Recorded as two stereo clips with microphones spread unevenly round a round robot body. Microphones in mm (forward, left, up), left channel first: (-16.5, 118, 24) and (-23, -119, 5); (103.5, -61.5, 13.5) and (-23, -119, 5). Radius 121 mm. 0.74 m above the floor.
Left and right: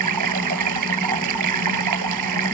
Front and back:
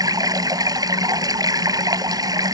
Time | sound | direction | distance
0.0 | running water | 90° right | ?